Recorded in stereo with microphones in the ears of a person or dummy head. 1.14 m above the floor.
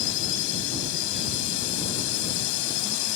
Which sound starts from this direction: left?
A drone, at 0.0 s.